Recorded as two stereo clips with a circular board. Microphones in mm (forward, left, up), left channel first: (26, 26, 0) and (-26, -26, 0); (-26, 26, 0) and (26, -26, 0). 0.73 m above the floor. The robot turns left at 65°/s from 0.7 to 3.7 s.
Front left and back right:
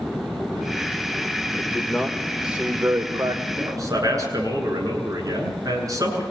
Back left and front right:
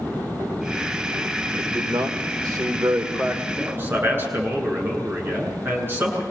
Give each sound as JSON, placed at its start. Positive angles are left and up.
{"t": 1.5, "sound": "a man speaking", "azimuth_deg": 5, "distance_m": 3.0}
{"t": 3.5, "sound": "a man speaking", "azimuth_deg": -95, "distance_m": 8.5}